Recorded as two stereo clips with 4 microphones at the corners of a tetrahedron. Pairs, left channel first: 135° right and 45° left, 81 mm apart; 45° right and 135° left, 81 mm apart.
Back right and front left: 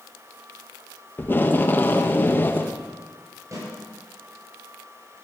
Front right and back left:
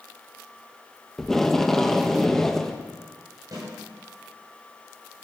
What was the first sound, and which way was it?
Tape being pulled, 125° right.